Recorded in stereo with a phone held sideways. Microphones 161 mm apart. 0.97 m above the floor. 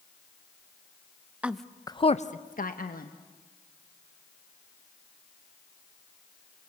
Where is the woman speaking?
10° right (ahead or behind), 0.7 m; by 3.1 s 65° left (ahead or behind), 1.3 m.